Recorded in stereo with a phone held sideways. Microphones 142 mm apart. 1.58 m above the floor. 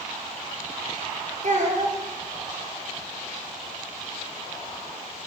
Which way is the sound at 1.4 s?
55° right (ahead or behind).